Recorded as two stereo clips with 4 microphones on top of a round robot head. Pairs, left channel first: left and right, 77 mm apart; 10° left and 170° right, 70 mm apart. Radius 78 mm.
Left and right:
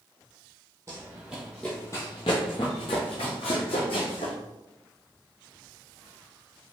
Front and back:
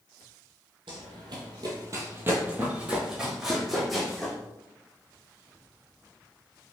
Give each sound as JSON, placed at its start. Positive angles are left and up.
{"t": 0.9, "sound": "running footsteps", "azimuth_deg": -155, "distance_m": 1.0}